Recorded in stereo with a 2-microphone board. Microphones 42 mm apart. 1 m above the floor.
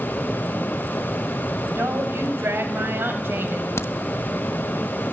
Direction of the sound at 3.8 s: 80° left.